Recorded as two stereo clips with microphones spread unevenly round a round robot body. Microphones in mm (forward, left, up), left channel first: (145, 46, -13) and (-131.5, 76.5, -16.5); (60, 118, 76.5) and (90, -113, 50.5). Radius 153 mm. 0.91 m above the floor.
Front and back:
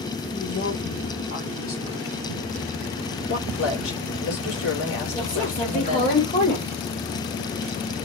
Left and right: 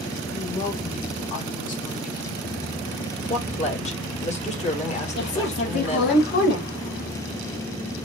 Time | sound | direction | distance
0.3 | a woman speaking | 40° left | 3 m
3.3 | a woman speaking | 35° left | 3 m
5.2 | a woman speaking | 55° left | 3 m